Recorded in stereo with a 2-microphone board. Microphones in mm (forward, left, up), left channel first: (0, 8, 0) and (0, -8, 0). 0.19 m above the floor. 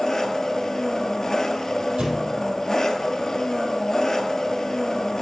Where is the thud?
80° right, 3 m.